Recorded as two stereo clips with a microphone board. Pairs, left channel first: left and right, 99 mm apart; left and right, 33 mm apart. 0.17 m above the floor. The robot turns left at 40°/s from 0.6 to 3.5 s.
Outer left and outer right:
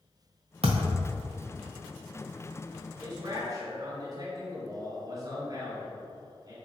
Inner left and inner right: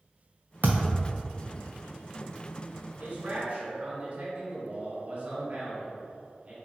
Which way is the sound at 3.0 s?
40° right (ahead or behind).